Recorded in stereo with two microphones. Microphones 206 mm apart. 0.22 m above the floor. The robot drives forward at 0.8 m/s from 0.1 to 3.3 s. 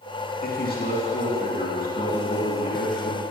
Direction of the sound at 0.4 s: 50° left (ahead or behind).